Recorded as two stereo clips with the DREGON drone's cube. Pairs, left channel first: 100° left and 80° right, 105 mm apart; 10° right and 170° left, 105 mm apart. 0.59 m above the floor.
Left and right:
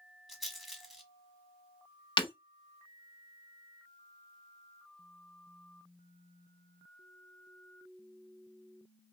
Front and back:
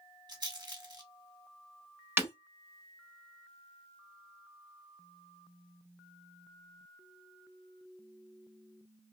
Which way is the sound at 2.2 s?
110° left.